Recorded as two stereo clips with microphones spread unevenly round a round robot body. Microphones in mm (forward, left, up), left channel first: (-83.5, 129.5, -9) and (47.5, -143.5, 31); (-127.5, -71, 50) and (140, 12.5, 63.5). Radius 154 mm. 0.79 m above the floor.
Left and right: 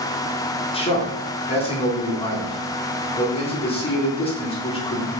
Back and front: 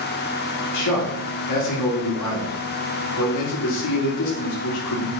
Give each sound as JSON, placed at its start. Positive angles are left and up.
{"t": 0.7, "sound": "a man speaking", "azimuth_deg": -175, "distance_m": 1.9}